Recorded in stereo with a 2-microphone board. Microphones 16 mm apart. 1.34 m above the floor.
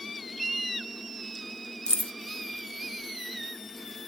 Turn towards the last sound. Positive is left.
turn(degrees=65)  # may be behind; listen again after turning